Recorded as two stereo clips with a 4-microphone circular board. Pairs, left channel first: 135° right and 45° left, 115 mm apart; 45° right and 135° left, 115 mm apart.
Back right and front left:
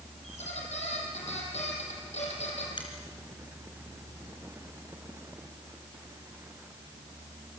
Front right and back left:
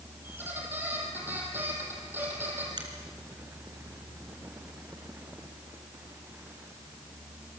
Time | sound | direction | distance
0.2 | a squeak | 150° right | 6 m
2.8 | a finger snap | straight behind | 4.5 m